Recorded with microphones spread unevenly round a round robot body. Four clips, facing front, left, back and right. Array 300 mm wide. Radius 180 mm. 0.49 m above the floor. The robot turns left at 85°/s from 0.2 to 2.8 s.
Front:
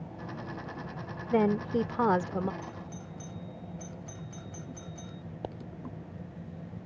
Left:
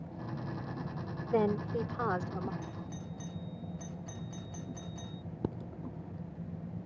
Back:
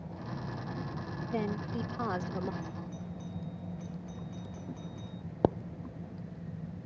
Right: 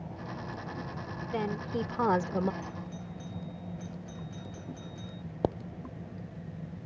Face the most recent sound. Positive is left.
turn(degrees=170)